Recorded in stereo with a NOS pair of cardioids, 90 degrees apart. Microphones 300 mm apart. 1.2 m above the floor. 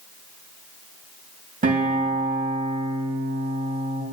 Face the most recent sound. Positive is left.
turn(degrees=-30)